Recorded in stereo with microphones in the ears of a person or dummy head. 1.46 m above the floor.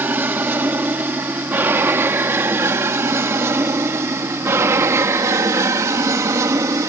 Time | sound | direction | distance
0.0 | an aircraft | 10° right (ahead or behind) | ?